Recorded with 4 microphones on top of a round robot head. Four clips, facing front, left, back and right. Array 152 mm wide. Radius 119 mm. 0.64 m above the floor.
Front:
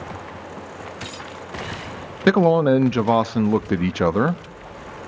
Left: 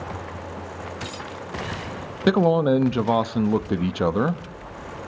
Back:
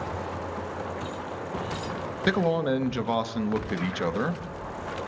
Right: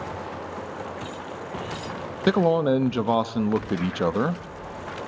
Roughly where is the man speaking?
Ahead.